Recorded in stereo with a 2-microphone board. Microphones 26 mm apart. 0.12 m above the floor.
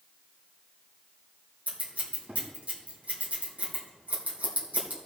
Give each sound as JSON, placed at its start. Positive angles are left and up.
{"t": 1.7, "sound": "scissors", "side_deg": -70, "distance_m": 3.5}